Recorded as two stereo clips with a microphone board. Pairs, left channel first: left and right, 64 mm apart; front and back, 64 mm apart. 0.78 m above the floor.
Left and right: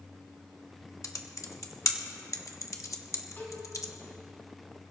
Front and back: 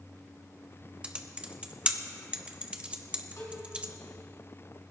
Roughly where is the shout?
No shout in this recording.